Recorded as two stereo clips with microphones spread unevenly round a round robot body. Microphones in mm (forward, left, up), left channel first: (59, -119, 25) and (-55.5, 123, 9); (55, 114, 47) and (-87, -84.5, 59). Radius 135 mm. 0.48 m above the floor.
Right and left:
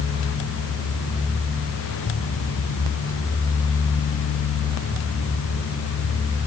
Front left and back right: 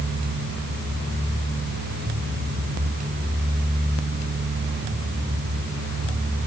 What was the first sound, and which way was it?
Only background noise.